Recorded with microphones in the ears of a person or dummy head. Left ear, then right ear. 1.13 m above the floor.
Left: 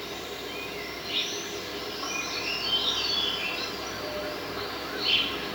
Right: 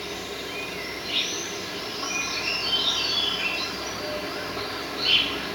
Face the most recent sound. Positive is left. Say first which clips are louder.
# right 3 dB
turn(degrees=-15)  # may be behind; listen again after turning